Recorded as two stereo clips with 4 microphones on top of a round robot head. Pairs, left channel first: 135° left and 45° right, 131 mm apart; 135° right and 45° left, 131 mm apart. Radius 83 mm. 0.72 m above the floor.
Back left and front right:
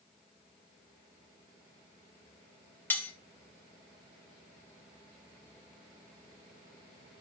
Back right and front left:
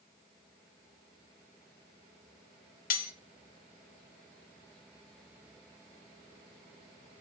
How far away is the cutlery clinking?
About 1.1 m.